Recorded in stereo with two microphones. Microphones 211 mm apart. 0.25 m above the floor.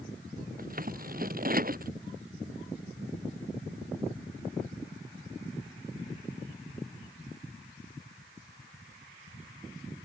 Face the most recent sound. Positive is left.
turn(degrees=-45)  # may be behind; listen again after turning